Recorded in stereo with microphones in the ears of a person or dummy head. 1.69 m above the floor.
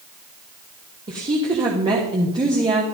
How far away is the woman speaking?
About 1.5 m.